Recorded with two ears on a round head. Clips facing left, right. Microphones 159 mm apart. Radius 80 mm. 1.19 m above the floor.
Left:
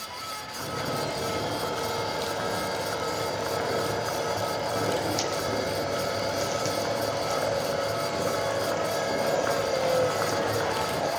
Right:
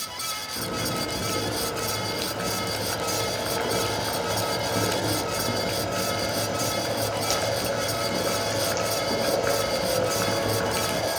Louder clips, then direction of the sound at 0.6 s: Right 1 dB; 30° right (ahead or behind).